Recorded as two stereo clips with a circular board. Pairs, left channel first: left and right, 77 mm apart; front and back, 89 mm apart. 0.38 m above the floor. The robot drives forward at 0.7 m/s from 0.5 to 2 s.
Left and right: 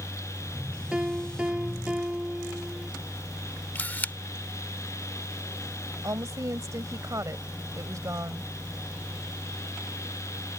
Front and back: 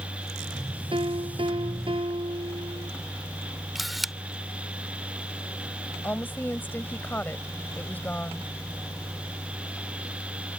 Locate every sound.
0.9 s a piano: 165° right; by 2.9 s 170° right
3.8 s a camera shutter: 90° left
6.0 s a woman speaking: 65° right